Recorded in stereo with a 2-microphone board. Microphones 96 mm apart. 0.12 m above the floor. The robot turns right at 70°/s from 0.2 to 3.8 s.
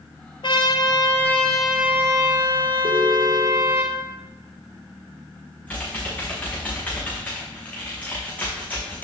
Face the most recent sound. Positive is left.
turn(degrees=15)  # may be behind; listen again after turning